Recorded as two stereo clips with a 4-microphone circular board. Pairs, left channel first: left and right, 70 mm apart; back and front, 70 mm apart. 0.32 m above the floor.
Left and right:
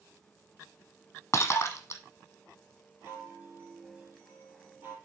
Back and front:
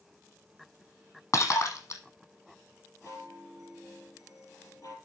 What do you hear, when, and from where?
1.3 s breaking glass: 140° left, 1.4 m
3.0 s a chime: 155° right, 4 m